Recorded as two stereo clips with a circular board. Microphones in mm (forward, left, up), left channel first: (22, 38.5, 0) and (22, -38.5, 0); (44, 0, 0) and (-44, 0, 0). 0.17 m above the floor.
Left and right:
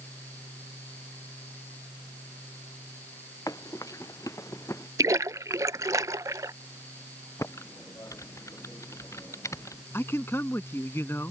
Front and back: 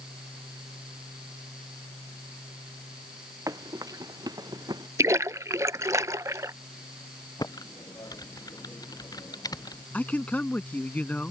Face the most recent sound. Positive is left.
turn(degrees=60)